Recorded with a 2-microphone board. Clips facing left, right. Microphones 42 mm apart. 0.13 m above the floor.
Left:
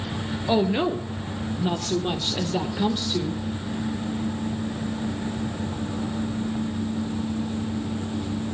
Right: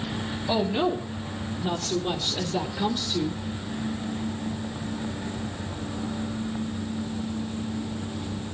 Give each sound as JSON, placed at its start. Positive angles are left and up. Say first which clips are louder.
{"t": 0.5, "sound": "a woman speaking", "louder": "left 3 dB", "side_deg": 35, "distance_m": 2.0}